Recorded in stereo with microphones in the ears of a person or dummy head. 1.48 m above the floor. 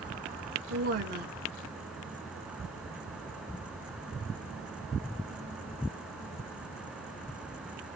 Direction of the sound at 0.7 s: 55° right (ahead or behind).